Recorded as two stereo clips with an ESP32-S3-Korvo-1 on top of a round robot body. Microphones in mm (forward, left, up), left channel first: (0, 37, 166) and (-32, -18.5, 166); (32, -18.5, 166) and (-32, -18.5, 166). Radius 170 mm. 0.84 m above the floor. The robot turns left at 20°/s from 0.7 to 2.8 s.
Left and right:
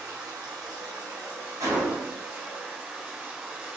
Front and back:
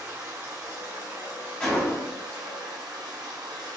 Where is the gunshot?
75° right, 0.9 m; by 2.2 s 90° right, 0.9 m.